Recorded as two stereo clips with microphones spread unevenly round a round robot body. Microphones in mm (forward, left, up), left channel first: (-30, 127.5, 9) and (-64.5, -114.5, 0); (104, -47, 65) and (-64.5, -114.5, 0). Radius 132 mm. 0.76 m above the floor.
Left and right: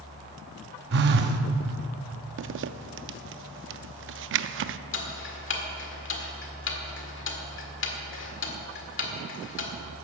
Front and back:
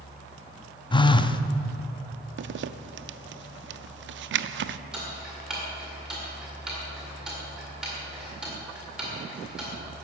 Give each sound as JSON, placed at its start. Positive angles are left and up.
{"t": 0.9, "sound": "a phone buzzing", "azimuth_deg": -50, "distance_m": 0.7}
{"t": 2.4, "sound": "a zipper", "azimuth_deg": -140, "distance_m": 0.5}
{"t": 4.9, "sound": "ticking", "azimuth_deg": 120, "distance_m": 1.8}